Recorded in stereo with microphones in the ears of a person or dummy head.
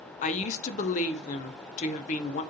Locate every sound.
0.2 s a woman speaking: 35° left (ahead or behind), 0.6 m